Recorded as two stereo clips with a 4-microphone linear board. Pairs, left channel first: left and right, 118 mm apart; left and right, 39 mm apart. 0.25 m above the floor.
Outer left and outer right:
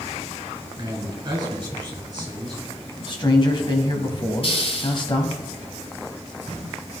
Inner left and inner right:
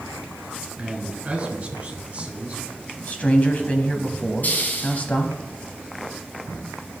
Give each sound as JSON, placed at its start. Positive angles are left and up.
{"t": 0.8, "sound": "a man speaking", "side_deg": -40, "distance_m": 2.5}
{"t": 3.0, "sound": "a man speaking", "side_deg": 45, "distance_m": 1.2}
{"t": 4.4, "sound": "a hiss", "side_deg": 55, "distance_m": 0.9}